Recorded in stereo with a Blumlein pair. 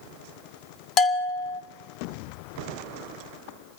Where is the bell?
30° left, 1.6 m.